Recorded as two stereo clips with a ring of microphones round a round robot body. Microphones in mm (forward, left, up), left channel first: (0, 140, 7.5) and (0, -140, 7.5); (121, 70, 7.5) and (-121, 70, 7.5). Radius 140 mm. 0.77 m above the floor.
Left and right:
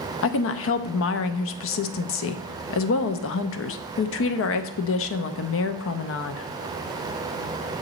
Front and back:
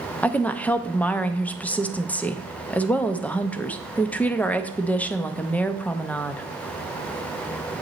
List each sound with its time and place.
0.2 s a woman speaking: 80° left, 0.5 m